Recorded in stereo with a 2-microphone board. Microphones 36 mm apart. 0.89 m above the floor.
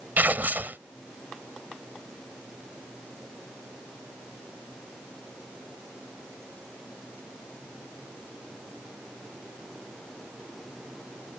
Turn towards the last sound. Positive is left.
turn(degrees=-50)  # may be behind; listen again after turning